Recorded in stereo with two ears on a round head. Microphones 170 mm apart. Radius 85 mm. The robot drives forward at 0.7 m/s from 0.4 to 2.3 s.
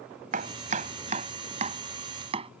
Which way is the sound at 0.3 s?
45° right (ahead or behind).